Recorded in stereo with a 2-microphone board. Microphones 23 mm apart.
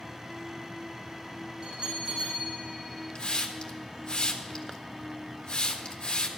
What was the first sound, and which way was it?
A bell, 40° right (ahead or behind).